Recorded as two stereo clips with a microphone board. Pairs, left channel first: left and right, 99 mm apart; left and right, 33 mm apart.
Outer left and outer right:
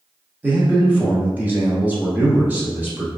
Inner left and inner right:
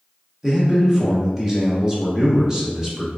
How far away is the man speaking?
About 0.8 m.